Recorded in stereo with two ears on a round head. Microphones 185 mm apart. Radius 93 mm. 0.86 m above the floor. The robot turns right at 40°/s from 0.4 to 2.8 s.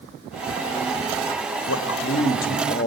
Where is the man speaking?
95° left, 1.5 m; by 2.9 s 140° left, 1.5 m.